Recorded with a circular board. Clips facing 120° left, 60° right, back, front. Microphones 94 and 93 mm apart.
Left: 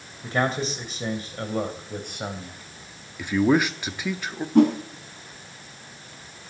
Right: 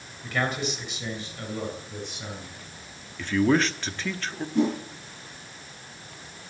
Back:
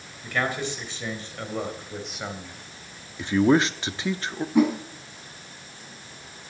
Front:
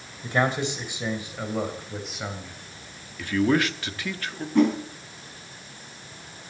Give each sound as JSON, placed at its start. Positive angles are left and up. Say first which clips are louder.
{"t": 0.2, "sound": "a man speaking", "louder": "left 3 dB, front 3 dB", "azimuth_deg": 65, "distance_m": 2.5}
{"t": 3.2, "sound": "a man speaking", "louder": "left 2 dB, back 3 dB", "azimuth_deg": 180, "distance_m": 0.8}
{"t": 4.5, "sound": "a whoosh", "louder": "left 7 dB, even", "azimuth_deg": 100, "distance_m": 3.5}